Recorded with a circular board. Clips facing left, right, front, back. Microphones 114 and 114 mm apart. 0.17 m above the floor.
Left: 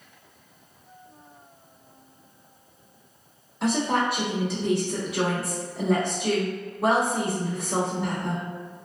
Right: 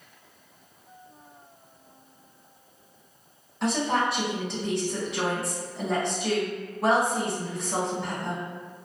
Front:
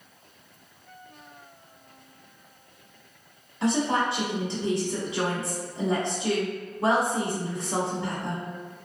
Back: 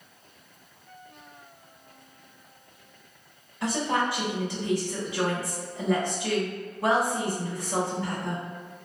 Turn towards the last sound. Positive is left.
turn(degrees=10)